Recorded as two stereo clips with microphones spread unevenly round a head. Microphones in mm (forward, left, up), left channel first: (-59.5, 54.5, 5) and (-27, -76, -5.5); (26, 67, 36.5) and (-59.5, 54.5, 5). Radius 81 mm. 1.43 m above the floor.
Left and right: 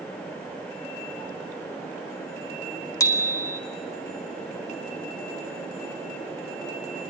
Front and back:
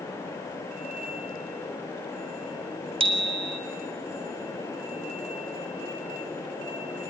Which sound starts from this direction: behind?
A bicycle bell, at 3.0 s.